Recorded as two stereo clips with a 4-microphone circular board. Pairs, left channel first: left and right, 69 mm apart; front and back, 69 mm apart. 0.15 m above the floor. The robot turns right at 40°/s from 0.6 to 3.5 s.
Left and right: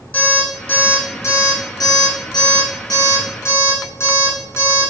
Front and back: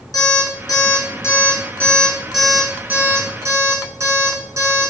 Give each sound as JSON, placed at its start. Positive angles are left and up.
{"t": 0.1, "sound": "an alarm clock", "azimuth_deg": 15, "distance_m": 4.5}